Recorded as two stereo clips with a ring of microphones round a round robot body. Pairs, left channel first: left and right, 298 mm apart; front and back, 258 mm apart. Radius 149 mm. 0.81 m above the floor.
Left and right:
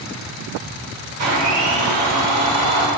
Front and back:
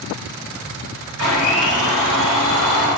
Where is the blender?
50° right, 1.7 m.